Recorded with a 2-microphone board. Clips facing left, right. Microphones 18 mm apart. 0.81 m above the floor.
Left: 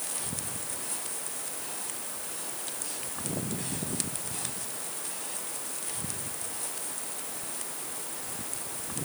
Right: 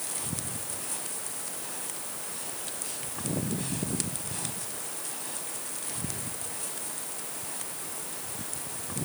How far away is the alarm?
No alarm in this recording.